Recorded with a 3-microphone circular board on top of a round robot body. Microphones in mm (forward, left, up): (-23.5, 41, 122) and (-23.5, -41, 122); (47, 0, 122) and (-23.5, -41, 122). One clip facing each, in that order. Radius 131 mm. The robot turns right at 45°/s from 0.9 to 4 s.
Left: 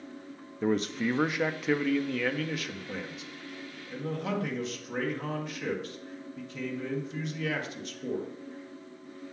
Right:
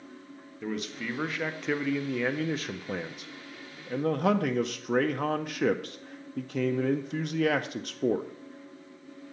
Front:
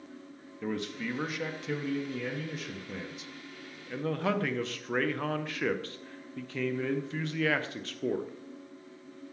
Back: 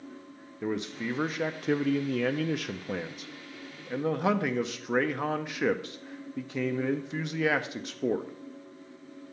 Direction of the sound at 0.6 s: 140° left.